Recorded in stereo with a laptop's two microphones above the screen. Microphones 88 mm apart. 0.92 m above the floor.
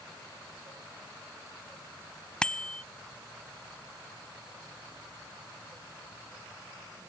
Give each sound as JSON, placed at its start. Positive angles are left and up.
{"t": 2.4, "sound": "a bicycle bell", "side_deg": 10}